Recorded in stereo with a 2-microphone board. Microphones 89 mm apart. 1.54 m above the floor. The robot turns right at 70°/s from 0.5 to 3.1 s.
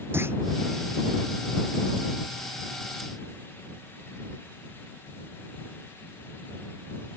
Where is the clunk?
25° right (ahead or behind).